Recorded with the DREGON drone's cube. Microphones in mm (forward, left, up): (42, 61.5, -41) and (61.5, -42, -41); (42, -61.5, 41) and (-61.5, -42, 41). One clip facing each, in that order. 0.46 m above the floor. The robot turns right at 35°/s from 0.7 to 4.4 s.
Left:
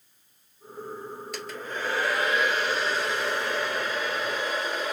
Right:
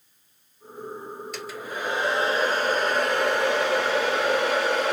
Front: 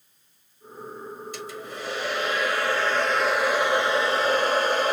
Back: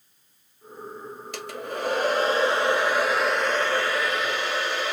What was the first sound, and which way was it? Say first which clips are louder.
A hair dryer: even, back 3 dB; 170° right.